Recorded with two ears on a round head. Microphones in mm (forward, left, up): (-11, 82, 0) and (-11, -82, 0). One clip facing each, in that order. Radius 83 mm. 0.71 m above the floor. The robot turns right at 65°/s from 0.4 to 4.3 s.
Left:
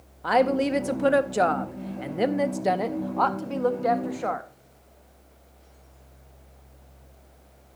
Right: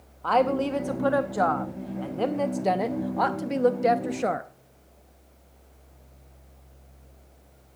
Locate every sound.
0.2 s a woman speaking: 10° left (ahead or behind), 0.6 m; by 4.5 s 30° right (ahead or behind), 0.6 m